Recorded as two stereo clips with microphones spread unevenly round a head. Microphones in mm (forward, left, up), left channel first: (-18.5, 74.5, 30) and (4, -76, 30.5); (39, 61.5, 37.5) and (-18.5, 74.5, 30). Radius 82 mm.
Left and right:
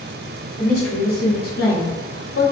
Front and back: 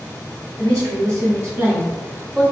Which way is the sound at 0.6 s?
165° left.